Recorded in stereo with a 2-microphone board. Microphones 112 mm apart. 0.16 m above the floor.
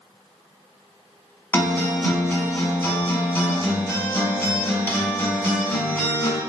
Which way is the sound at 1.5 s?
20° left (ahead or behind).